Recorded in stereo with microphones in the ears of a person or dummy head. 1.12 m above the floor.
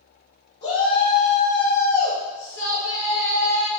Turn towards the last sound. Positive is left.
turn(degrees=80)